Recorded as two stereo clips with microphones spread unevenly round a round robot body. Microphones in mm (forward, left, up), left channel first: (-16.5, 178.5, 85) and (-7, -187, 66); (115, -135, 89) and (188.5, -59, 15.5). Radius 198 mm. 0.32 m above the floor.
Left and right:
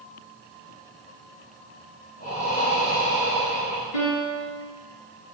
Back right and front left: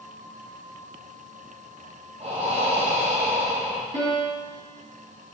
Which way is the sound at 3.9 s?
80° left.